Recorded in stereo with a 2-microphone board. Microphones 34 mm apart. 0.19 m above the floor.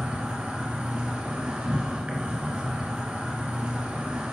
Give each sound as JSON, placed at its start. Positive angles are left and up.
{"t": 0.0, "sound": "an insect", "side_deg": -40, "distance_m": 1.1}